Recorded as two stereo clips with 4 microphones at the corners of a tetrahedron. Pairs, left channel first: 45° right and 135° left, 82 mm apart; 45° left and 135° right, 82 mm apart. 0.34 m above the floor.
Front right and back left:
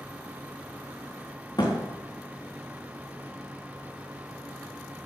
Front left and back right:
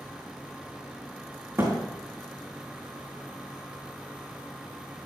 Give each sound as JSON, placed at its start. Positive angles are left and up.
{"t": 1.6, "sound": "a thud", "azimuth_deg": -80, "distance_m": 3.5}